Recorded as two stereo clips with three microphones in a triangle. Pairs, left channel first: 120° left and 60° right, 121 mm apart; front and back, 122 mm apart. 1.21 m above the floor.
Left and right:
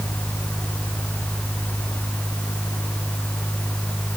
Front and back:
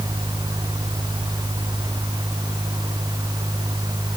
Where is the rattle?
I don't hear a rattle.